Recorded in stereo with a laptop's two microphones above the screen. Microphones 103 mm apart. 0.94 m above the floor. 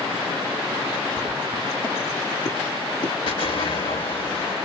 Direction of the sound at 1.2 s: 5° right (ahead or behind).